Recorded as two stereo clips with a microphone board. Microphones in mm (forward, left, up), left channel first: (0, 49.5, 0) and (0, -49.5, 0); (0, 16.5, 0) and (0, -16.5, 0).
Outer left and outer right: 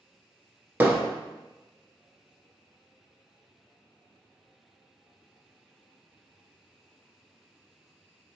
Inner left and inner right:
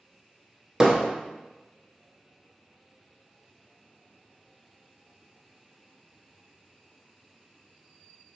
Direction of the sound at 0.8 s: 20° right (ahead or behind).